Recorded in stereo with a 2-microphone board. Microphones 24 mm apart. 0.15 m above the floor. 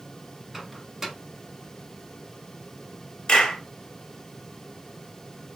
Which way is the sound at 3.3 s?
40° left (ahead or behind).